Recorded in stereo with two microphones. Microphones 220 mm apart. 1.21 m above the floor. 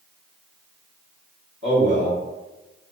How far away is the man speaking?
About 1.5 m.